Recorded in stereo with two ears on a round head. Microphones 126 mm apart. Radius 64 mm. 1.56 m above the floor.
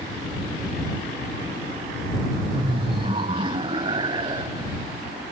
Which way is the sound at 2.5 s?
40° right (ahead or behind).